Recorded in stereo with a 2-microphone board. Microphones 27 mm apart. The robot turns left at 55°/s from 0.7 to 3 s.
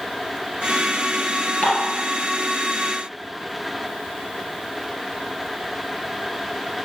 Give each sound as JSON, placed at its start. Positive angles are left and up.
{"t": 1.6, "sound": "dishes clattering", "side_deg": 45, "distance_m": 3.0}